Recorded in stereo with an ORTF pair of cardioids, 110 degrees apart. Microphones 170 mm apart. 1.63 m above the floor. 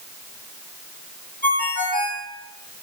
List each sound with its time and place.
1.4 s a ringtone: 55° left, 2.5 m